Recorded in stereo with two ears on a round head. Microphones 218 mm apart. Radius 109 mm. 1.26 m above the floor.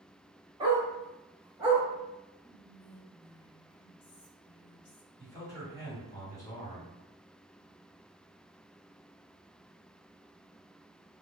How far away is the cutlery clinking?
No cutlery clinking in this recording.